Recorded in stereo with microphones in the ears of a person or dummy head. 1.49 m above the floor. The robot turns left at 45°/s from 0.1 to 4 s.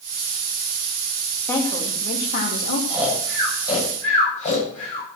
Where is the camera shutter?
I don't hear a camera shutter.